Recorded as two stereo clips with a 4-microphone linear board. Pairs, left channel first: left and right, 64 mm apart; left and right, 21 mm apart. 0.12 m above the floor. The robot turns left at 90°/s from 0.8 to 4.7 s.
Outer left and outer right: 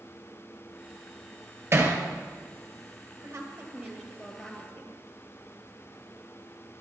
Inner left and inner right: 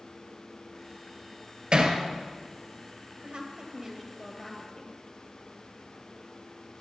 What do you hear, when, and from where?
1.7 s hammering: 40° right (ahead or behind), 2 m; by 2.0 s 20° right (ahead or behind), 2 m
3.2 s a woman speaking: 80° right, 2.5 m; by 5.0 s 150° left, 2.5 m